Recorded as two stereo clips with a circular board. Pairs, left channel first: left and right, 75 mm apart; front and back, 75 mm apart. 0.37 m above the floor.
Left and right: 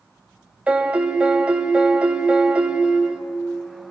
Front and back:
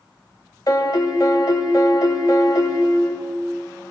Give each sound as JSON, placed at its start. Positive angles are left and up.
{"t": 0.7, "sound": "a piano", "azimuth_deg": -15, "distance_m": 1.3}